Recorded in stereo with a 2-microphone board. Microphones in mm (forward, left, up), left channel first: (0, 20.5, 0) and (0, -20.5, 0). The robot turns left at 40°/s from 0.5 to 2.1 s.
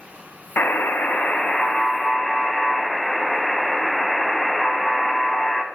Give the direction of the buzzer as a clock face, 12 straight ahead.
10 o'clock.